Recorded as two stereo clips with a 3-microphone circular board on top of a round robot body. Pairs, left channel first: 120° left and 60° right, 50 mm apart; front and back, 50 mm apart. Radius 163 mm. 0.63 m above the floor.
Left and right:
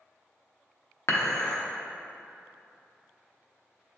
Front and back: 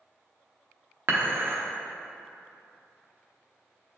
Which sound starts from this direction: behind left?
Dishes clattering, at 1.1 s.